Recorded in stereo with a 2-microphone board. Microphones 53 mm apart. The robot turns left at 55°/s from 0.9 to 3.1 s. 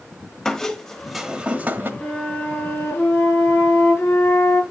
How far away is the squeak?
About 1.3 m.